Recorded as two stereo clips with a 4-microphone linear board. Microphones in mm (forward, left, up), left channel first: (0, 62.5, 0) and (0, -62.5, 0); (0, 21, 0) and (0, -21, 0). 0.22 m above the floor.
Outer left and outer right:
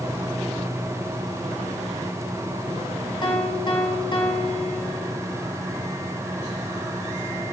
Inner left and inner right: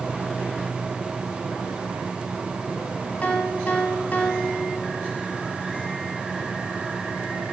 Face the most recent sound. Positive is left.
turn(degrees=40)  # may be behind; listen again after turning